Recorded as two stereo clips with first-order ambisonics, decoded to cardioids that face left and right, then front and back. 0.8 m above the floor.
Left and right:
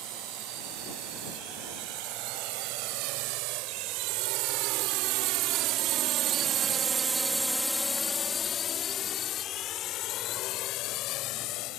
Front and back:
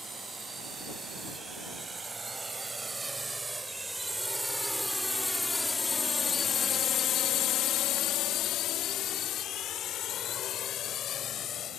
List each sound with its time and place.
0.0 s a drone: 105° right; by 11.8 s 55° left